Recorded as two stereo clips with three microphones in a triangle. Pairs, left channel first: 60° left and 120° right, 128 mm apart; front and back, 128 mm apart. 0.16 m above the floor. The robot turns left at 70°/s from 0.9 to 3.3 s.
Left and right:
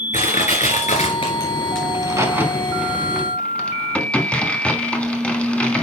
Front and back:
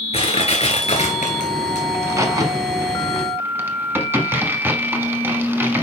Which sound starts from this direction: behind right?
A crack, at 1.9 s.